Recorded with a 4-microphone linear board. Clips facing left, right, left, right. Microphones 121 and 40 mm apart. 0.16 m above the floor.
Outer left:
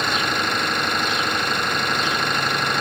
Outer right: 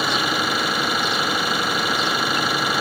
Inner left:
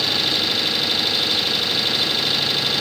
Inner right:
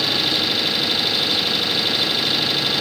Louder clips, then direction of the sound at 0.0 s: Outer right 1 dB, inner right 1 dB; 5° right (ahead or behind).